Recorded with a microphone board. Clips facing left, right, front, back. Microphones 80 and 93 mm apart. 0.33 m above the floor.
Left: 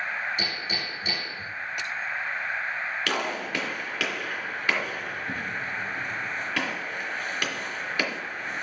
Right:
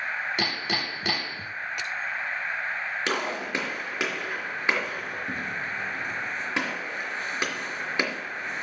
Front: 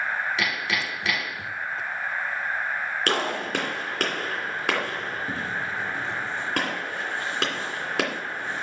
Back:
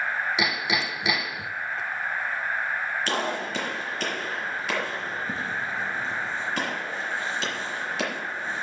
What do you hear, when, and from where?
0.4 s hammering: 105° right, 0.8 m
3.1 s a gunshot: 25° right, 3 m